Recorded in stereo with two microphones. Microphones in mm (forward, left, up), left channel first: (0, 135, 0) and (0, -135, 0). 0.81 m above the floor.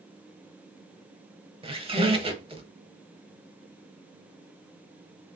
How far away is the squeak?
About 0.6 m.